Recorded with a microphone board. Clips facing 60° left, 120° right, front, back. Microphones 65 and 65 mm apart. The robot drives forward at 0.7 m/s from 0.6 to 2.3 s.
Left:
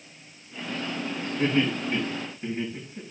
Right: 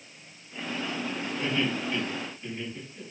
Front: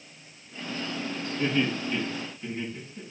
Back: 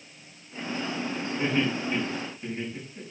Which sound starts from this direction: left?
Laughter, at 1.4 s.